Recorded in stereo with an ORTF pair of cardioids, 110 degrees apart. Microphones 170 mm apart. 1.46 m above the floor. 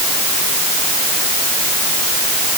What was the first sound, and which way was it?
Only background noise.